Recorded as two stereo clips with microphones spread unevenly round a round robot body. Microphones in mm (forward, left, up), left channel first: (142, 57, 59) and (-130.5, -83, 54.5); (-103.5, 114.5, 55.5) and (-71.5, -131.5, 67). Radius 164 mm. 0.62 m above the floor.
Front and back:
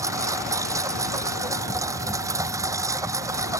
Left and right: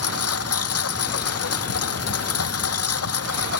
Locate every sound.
0.0 s a lawn mower: 125° left